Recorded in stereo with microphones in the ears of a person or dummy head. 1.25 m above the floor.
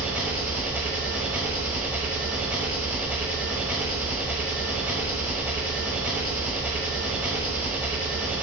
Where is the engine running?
10° right (ahead or behind), 1.0 m.